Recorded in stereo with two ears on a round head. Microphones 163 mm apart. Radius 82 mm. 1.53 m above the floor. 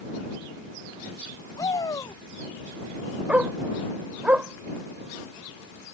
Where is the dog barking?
5° right (ahead or behind).